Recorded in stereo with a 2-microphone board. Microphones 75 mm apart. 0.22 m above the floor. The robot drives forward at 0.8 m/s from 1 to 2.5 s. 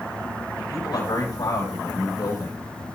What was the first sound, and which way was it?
A man speaking, 70° left (ahead or behind).